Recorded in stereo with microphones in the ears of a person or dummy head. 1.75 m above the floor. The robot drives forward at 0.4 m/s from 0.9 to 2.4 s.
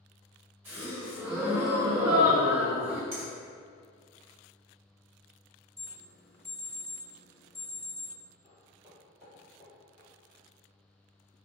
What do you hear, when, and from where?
0.7 s a gasp: 15° right (ahead or behind), 0.6 m; by 3.0 s 5° right (ahead or behind), 1.1 m
3.1 s a finger snap: 30° right (ahead or behind), 0.6 m
5.8 s an alarm: 30° right (ahead or behind), 0.8 m
8.4 s footsteps: 25° right (ahead or behind), 1.8 m; by 10.1 s 5° right (ahead or behind), 2 m